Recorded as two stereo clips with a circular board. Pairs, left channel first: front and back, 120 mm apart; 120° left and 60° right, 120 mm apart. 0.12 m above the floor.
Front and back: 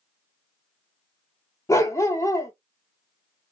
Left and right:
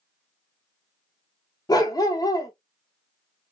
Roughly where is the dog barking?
Ahead left.